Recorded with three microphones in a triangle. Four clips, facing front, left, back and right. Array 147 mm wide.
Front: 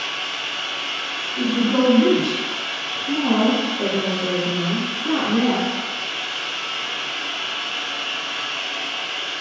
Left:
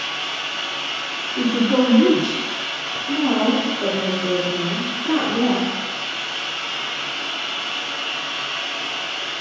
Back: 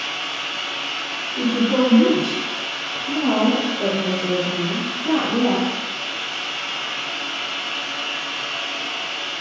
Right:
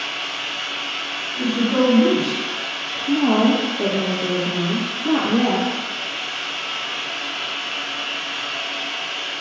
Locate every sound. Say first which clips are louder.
0.0 s running water: left 1 dB, even; 125° left, 1.2 m
1.4 s a man speaking: left 1 dB, back 1 dB; 120° left, 0.7 m
3.1 s a woman speaking: right 2 dB, even; 95° right, 1.1 m